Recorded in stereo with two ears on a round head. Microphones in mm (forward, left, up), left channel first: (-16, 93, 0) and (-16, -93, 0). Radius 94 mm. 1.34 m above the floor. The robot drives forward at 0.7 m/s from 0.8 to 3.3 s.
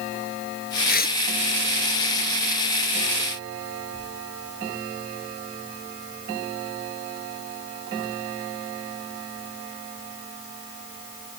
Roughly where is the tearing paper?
Left.